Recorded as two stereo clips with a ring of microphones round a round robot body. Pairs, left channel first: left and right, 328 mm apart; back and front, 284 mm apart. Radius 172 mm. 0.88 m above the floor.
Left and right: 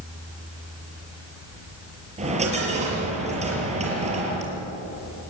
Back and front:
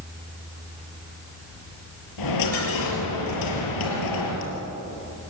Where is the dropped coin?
160° right, 6 m.